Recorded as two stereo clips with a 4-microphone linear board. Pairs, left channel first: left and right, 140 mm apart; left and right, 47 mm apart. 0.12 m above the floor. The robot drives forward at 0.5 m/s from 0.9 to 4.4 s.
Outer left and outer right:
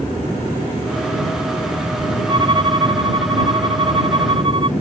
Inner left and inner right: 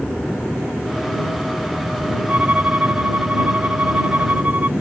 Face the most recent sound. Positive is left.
turn(degrees=-40)  # may be behind; listen again after turning